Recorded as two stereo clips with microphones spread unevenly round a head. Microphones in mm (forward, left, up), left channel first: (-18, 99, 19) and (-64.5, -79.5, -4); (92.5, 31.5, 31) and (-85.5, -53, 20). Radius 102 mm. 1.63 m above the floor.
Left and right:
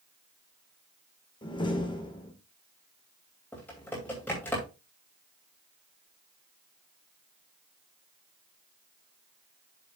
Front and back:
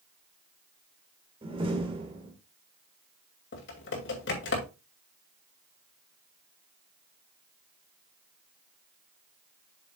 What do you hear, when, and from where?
1.4 s a door slam: 140° left, 1.6 m
3.5 s typing on a keyboard: 5° right, 2.5 m